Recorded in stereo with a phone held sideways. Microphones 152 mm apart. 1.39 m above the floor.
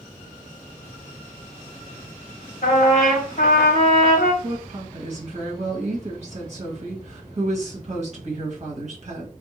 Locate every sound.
2.6 s a trumpet: 65° left (ahead or behind), 0.8 m
4.4 s a woman speaking: 50° right (ahead or behind), 1.3 m